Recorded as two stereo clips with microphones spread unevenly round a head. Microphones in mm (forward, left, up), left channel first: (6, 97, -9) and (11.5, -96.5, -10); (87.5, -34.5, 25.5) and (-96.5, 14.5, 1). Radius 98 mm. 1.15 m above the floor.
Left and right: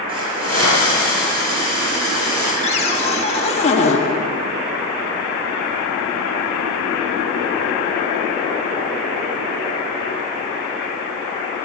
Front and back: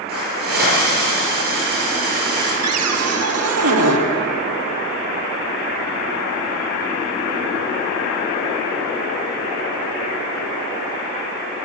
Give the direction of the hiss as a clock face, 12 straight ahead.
5 o'clock.